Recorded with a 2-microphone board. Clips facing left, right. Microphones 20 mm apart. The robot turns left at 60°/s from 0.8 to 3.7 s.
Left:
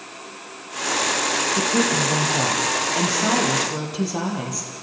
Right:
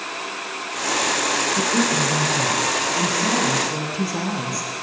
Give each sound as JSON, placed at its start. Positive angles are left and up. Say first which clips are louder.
{"t": 1.6, "sound": "a woman speaking", "louder": "even", "azimuth_deg": 145, "distance_m": 5.0}